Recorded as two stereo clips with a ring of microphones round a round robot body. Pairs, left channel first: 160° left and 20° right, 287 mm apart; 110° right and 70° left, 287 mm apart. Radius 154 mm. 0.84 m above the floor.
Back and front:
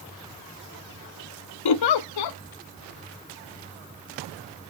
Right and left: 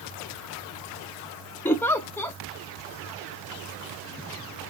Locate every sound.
1.6 s a giggle: 165° left, 0.5 m